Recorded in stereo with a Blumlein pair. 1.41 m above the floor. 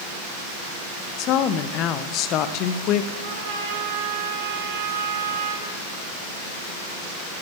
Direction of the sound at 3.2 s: 55° right.